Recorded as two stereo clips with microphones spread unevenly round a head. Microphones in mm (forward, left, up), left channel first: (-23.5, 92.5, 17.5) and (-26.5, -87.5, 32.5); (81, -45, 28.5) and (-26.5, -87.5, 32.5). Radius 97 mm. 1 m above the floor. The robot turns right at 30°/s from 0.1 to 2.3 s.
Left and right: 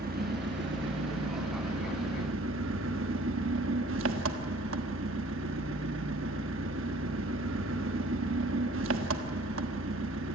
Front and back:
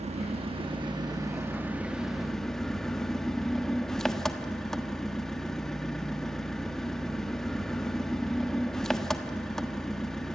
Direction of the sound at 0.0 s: 130° right.